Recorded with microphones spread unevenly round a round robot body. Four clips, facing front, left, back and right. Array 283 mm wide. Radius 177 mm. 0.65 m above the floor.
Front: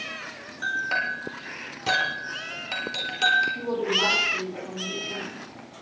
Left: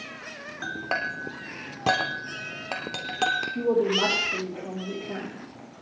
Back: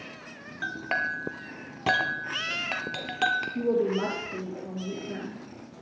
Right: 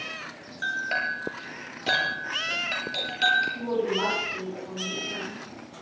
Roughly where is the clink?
Behind left.